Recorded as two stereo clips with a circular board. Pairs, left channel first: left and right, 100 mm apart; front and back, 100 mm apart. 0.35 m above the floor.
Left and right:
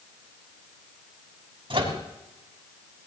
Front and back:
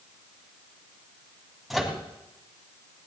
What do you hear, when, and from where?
1.7 s a microwave: 90° right, 2.5 m